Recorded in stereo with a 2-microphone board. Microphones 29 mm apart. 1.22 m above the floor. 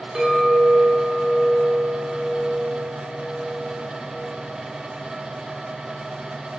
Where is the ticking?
No ticking in this recording.